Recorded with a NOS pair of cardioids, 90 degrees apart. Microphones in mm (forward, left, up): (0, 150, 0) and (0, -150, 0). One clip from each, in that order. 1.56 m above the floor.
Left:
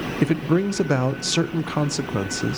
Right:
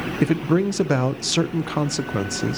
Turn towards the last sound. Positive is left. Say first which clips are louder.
# right 1 dB
turn(degrees=-5)